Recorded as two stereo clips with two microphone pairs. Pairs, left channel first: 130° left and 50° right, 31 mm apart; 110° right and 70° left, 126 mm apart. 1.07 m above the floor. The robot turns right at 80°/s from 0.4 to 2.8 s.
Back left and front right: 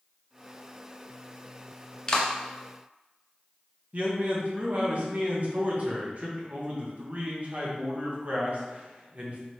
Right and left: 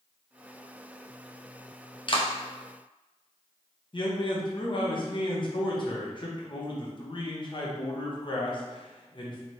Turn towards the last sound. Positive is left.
turn(degrees=-75)